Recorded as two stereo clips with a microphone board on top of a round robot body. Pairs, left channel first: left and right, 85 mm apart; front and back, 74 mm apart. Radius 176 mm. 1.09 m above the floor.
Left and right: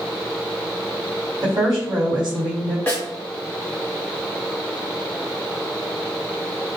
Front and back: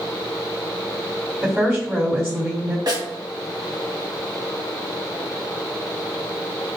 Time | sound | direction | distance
1.4 | a woman speaking | 120° right | 1.4 m
2.9 | a snare drum | 160° left | 0.9 m